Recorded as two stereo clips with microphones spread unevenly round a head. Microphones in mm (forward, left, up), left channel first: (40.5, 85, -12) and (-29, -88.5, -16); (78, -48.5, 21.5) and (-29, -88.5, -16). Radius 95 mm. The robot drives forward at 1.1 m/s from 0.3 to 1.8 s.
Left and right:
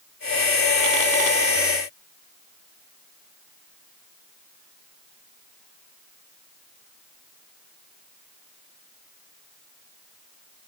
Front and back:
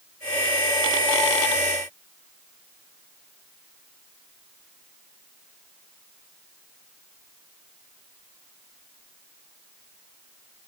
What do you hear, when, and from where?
Only background noise.